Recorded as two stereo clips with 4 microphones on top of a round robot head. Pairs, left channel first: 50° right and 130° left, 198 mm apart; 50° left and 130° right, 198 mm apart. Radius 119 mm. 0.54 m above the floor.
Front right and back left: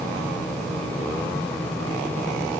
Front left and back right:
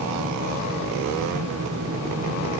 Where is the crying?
I don't hear crying.